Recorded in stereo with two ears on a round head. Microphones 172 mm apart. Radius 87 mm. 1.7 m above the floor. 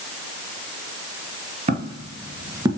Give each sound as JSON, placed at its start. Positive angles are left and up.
{"t": 1.7, "sound": "footsteps", "side_deg": -40, "distance_m": 2.0}